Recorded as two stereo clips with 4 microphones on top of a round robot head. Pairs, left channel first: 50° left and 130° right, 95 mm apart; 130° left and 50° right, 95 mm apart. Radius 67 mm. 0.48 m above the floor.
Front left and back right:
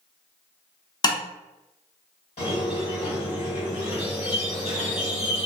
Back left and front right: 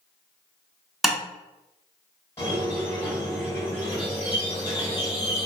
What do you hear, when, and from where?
1.0 s tapping: 35° left, 0.6 m
2.4 s a squeak: 60° left, 1.7 m